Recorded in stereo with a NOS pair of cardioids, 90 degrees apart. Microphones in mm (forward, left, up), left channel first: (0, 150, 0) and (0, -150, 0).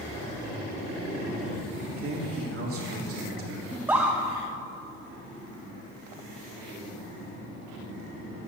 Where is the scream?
5° right, 0.8 m.